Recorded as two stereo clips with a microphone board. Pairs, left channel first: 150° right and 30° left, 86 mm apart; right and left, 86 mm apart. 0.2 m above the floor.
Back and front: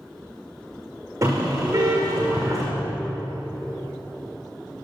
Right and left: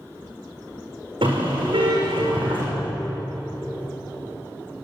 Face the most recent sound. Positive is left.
turn(degrees=80)